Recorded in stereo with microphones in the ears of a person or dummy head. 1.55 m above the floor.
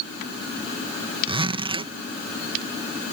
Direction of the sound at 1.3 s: 30° right (ahead or behind).